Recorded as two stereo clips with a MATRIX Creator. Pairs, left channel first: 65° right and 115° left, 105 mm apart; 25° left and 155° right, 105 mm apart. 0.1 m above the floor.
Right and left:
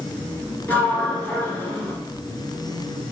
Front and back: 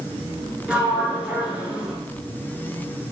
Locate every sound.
0.7 s a sliding door: 100° right, 0.9 m